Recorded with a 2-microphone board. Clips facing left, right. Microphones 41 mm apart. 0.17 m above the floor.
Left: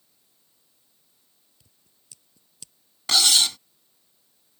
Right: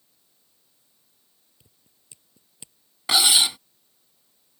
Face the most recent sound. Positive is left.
turn(degrees=-15)  # may be behind; listen again after turning